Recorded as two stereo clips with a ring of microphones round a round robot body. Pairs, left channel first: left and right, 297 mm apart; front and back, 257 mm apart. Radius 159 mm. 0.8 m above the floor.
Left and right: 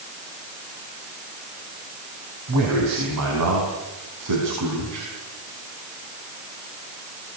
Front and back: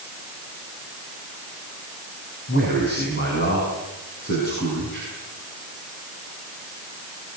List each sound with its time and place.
2.5 s a man speaking: 55° right, 5.5 m; by 5.1 s 65° right, 6.5 m